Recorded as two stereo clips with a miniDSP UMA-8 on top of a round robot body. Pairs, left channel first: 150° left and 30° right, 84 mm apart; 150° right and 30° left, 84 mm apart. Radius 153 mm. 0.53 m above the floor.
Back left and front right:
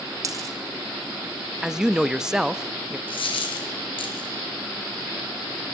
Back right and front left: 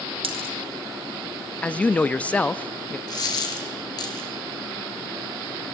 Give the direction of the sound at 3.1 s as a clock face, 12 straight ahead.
6 o'clock.